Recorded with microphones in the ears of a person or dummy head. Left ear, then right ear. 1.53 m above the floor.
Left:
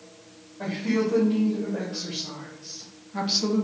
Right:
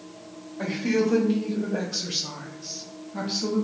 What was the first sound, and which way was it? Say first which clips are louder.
A woman speaking: right 2 dB; 60° right (ahead or behind).